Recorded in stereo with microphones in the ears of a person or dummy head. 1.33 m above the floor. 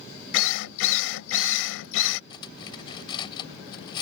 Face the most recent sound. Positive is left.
turn(degrees=30)  # may be behind; listen again after turning